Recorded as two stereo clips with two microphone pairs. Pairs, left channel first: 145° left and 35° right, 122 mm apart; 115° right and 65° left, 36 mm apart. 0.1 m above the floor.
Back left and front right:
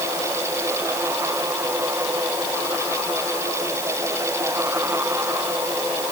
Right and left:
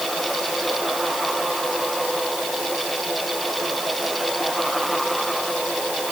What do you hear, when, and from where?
Only background noise.